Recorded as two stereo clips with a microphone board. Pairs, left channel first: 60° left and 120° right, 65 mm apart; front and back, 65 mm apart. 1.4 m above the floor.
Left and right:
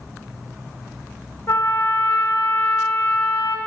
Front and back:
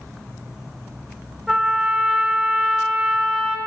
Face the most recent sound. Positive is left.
turn(degrees=100)